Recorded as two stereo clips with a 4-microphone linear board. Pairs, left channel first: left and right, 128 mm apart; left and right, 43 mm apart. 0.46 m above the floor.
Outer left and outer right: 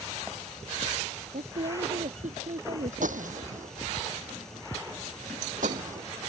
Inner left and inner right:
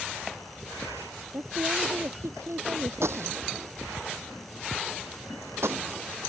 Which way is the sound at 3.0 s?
90° right.